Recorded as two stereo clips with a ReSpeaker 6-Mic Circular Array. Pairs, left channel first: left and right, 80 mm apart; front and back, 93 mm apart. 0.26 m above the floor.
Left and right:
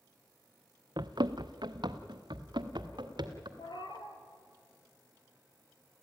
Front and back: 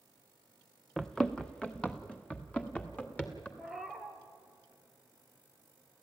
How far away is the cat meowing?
About 1.9 m.